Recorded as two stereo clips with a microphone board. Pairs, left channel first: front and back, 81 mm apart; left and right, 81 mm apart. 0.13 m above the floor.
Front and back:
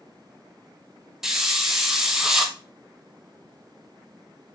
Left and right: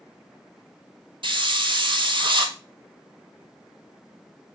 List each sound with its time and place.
1.2 s a hiss: 95° right, 0.7 m